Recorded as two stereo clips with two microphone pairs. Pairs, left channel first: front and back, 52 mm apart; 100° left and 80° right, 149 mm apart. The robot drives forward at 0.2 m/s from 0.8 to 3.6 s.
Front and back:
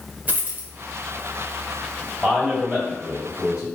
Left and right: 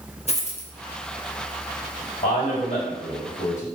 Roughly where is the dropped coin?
Behind left.